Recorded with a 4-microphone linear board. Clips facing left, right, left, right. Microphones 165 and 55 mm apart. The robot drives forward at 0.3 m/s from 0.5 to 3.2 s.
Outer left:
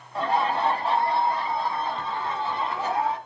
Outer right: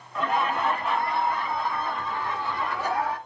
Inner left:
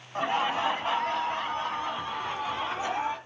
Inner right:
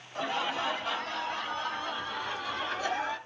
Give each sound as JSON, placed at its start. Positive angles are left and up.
{"t": 0.1, "sound": "laughter", "side_deg": 30, "distance_m": 1.1}